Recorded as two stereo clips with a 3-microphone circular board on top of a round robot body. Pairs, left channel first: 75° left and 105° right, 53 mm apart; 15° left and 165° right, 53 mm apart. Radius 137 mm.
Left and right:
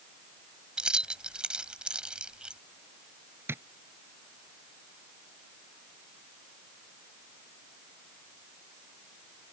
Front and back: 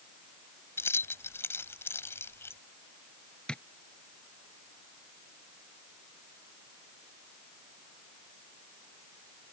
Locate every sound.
0.8 s keys jangling: 30° right
3.5 s tapping: 60° right